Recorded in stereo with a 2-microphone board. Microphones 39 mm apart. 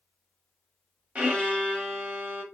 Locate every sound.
1.1 s a violin: 30° right (ahead or behind), 1.3 m